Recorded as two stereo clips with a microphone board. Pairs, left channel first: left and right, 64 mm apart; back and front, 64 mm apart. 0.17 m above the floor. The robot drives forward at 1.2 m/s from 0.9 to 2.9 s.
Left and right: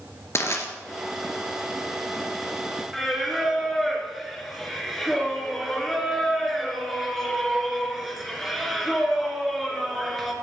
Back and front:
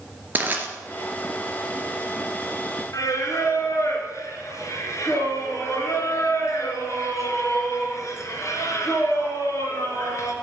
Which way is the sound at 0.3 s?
55° left.